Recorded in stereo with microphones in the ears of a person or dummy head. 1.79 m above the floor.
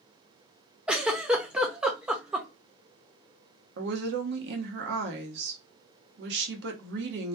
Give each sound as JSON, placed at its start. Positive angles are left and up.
{"t": 0.9, "sound": "a giggle", "side_deg": -10, "distance_m": 0.7}
{"t": 3.8, "sound": "a woman speaking", "side_deg": -65, "distance_m": 1.0}